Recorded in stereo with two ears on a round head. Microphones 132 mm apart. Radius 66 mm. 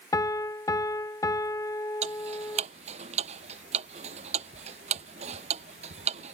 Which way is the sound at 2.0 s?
45° right (ahead or behind).